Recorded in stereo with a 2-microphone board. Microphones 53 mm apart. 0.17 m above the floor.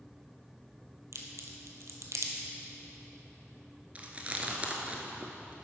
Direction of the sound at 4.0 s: 30° right (ahead or behind).